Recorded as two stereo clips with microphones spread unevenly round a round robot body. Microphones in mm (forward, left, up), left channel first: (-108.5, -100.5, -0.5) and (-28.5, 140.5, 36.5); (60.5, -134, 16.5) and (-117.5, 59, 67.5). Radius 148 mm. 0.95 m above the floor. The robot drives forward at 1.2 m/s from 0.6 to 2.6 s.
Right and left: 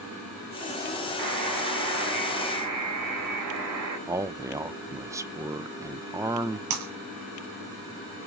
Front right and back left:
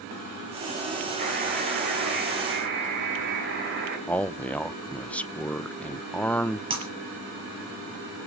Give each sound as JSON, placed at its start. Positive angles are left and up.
{"t": 1.2, "sound": "a buzzer", "azimuth_deg": 70, "distance_m": 9.5}
{"t": 4.1, "sound": "a man speaking", "azimuth_deg": -10, "distance_m": 0.6}
{"t": 6.7, "sound": "breaking glass", "azimuth_deg": 60, "distance_m": 4.5}